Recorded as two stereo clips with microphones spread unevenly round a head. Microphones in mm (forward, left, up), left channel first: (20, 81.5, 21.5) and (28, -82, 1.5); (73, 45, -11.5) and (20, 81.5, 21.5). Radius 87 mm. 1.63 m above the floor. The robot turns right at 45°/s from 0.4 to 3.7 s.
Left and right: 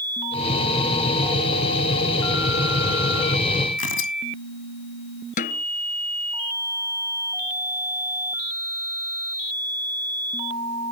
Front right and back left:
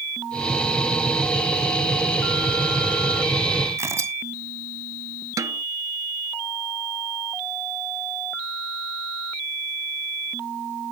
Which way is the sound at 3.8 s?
105° left.